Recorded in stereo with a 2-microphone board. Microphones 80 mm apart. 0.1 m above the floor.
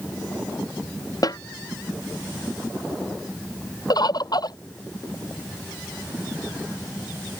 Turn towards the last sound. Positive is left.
turn(degrees=55)  # may be behind; listen again after turning